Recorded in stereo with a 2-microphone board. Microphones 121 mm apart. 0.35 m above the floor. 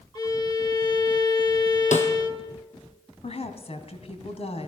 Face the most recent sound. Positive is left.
turn(degrees=55)  # may be behind; listen again after turning